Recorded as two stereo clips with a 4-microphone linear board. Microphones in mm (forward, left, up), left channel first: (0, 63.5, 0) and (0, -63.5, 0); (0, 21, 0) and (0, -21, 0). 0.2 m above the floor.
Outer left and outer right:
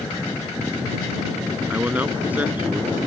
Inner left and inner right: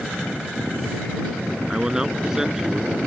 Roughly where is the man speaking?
Centre.